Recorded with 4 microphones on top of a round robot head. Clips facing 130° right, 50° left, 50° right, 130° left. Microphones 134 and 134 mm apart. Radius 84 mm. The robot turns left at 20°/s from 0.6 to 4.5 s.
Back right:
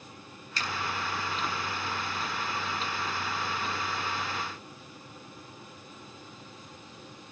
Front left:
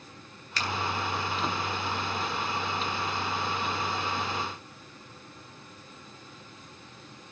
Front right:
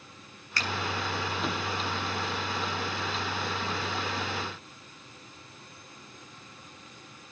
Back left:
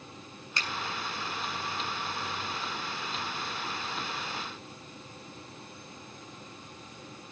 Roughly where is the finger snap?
Ahead left.